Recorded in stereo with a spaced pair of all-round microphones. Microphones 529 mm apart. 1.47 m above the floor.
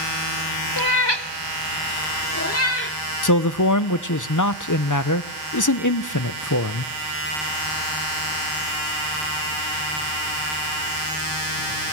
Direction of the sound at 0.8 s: 40° left (ahead or behind).